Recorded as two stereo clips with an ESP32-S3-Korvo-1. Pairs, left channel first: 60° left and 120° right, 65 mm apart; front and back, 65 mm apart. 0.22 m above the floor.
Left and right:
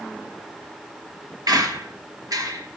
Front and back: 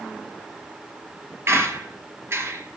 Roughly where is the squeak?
Behind right.